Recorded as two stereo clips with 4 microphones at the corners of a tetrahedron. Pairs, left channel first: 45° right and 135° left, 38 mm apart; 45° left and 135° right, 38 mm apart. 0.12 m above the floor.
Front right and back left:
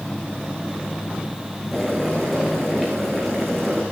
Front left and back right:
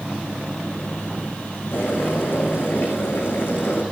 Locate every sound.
1.7 s boiling: 45° left, 8.5 m